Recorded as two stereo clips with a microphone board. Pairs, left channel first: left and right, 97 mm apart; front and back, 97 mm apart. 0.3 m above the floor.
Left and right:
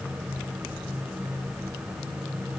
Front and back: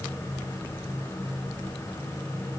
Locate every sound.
Only background noise.